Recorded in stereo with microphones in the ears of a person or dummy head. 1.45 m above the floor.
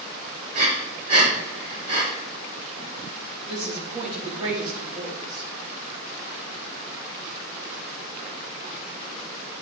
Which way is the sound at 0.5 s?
40° right (ahead or behind).